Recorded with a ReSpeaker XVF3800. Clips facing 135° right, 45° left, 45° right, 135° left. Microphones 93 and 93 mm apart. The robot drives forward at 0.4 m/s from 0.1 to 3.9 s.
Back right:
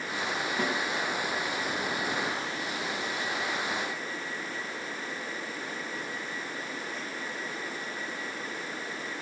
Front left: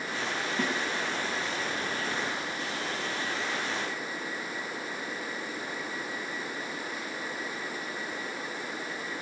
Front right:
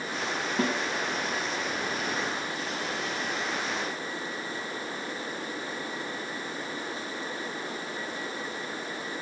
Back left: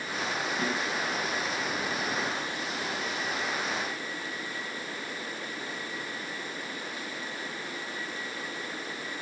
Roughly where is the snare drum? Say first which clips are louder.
Even, front right 5 dB; ahead right.